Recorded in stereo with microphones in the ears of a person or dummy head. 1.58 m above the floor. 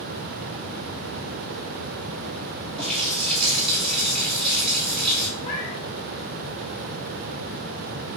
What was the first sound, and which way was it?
A running tap, 5° left (ahead or behind).